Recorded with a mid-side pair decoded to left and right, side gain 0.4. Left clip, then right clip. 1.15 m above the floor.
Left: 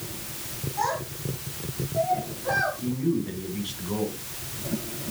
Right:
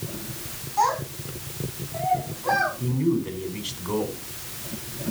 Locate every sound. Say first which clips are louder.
0.8 s a child speaking: right 5 dB; 65° right, 6 m; by 2.7 s 70° right, 7.5 m
2.8 s a man speaking: right 2 dB; 65° right, 6 m